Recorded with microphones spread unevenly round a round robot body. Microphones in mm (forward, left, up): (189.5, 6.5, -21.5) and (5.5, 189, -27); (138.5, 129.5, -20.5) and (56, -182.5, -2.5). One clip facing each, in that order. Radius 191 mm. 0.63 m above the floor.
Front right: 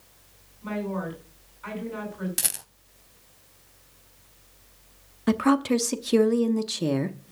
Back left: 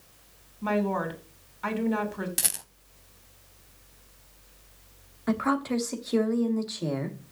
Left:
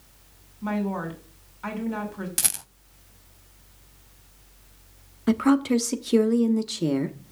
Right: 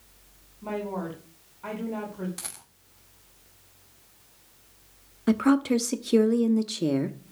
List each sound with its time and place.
0.6 s a woman speaking: 135° left, 2.5 m
2.4 s a rattle: 45° left, 0.6 m
5.3 s a woman speaking: 5° right, 0.8 m